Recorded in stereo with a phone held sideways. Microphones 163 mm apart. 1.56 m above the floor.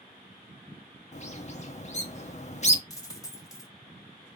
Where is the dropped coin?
20° left (ahead or behind), 1.1 m.